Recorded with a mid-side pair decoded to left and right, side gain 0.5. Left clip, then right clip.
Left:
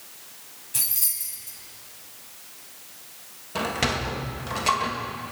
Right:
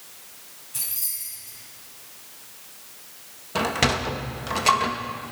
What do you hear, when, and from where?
0.7 s keys jangling: 40° left, 6.5 m
3.5 s a sliding door: 25° right, 1.6 m